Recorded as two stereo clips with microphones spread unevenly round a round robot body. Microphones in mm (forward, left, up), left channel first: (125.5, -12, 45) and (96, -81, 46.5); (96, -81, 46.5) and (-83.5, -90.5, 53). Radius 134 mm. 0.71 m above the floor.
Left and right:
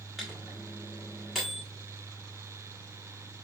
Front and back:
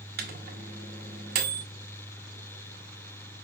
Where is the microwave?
155° left, 0.9 m.